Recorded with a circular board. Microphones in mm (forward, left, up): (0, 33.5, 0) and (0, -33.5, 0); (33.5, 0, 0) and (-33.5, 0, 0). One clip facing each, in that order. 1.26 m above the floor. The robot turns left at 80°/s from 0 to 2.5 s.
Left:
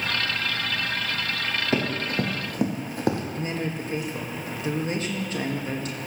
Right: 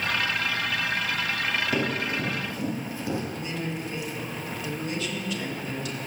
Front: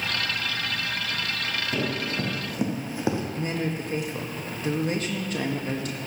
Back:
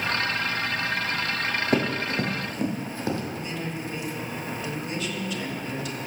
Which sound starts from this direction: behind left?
Running footsteps, at 1.7 s.